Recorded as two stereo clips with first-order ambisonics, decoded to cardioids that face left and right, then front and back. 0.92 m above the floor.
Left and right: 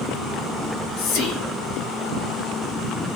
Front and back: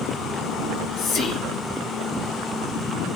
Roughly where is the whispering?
Ahead left.